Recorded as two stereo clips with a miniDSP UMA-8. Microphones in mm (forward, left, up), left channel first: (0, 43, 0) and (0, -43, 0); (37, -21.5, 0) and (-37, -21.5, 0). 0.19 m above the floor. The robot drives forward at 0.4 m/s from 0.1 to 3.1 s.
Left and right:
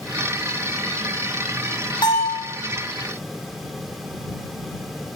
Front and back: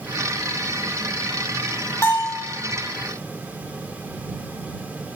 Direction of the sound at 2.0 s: 60° left.